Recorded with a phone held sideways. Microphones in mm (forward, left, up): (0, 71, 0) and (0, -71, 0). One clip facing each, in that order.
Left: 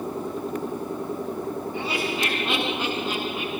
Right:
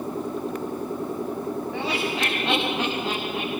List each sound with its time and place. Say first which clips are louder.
1.7 s laughter: right 1 dB; 85° right, 7 m; by 3.5 s 70° right (ahead or behind), 8 m